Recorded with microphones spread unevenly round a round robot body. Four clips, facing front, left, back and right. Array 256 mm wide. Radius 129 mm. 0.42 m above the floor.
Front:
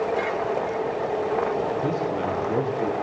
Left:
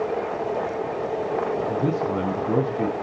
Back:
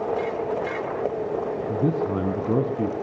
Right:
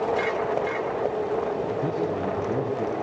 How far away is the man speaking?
About 4.5 m.